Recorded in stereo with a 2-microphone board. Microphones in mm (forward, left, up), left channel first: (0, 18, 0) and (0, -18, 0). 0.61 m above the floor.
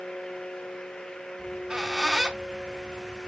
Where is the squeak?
15° right (ahead or behind), 0.7 m.